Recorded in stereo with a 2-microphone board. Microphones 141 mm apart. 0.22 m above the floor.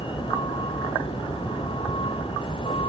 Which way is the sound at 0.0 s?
40° left (ahead or behind).